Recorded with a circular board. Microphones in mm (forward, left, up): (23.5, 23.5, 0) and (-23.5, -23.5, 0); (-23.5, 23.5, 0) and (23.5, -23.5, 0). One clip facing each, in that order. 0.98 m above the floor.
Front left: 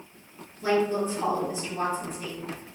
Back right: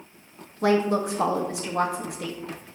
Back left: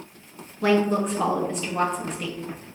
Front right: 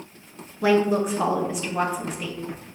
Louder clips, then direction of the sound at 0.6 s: Back right 3 dB, front right 1 dB; 130° right.